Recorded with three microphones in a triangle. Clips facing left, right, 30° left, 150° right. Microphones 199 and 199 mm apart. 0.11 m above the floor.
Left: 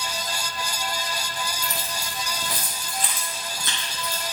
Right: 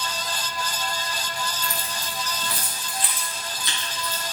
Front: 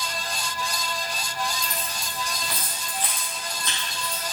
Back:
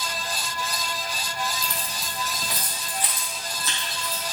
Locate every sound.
1.6 s keys jangling: 155° left, 1.7 m; by 4.2 s 125° left, 3 m